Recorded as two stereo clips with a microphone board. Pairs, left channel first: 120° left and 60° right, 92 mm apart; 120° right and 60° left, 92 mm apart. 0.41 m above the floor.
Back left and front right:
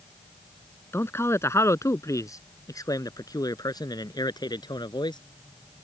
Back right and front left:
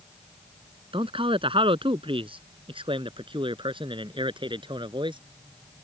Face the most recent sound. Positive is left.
turn(degrees=85)